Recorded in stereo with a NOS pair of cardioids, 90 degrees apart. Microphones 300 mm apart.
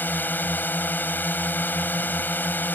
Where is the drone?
5° left.